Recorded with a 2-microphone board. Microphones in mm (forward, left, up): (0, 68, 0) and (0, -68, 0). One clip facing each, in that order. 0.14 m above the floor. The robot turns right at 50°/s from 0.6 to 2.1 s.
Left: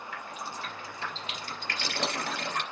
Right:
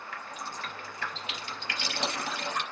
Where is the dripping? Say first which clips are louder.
Even; 5° left (ahead or behind), 3 m; by 2.6 s 60° left (ahead or behind), 3 m.